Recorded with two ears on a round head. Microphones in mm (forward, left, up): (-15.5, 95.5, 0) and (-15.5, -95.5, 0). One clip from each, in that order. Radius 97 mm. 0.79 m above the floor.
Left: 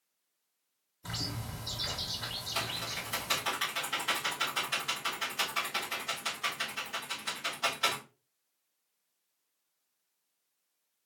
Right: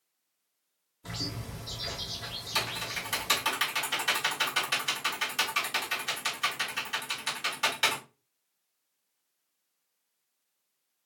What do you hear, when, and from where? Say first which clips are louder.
1.0 s a bird: right 1 dB; 20° left (ahead or behind), 1.7 m
2.5 s typing on a keyboard: right 5 dB; 45° right (ahead or behind), 2.5 m